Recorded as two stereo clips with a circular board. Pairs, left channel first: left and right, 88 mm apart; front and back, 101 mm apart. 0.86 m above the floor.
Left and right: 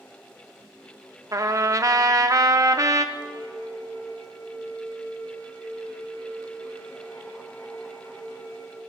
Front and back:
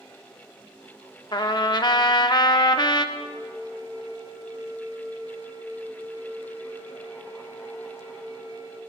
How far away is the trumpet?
About 0.6 m.